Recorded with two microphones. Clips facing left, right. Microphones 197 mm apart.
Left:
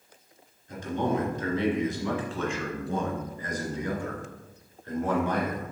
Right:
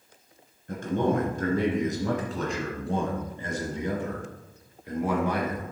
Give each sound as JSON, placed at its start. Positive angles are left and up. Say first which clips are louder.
{"t": 0.7, "sound": "a man speaking", "louder": "right 3 dB", "side_deg": -60, "distance_m": 2.5}